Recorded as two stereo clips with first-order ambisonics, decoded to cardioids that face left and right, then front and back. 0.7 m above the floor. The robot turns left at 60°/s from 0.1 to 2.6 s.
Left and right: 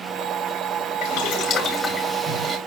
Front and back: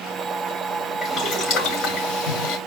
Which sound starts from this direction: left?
Boiling, at 1.0 s.